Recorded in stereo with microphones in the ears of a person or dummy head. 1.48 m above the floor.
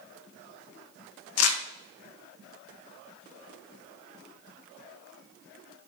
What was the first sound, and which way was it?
Crumpling, 85° left.